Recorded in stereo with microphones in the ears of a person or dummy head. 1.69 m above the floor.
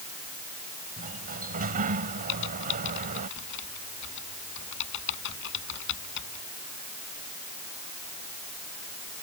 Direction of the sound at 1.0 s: 40° right (ahead or behind).